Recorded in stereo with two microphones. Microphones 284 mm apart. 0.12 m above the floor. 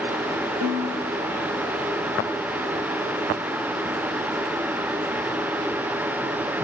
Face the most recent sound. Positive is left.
turn(degrees=-80)